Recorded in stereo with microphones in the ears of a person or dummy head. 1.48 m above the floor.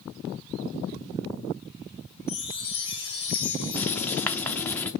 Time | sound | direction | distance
2.3 | a chime | 25° left (ahead or behind) | 1.0 m
3.7 | writing | 10° left (ahead or behind) | 0.5 m